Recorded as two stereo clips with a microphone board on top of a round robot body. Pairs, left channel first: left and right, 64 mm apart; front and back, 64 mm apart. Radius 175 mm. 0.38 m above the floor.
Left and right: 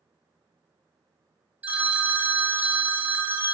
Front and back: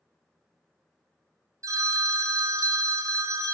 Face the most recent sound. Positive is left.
turn(degrees=-155)